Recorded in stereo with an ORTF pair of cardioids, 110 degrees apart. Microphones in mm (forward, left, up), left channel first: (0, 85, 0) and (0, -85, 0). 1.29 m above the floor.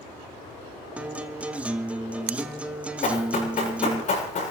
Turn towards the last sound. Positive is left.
turn(degrees=50)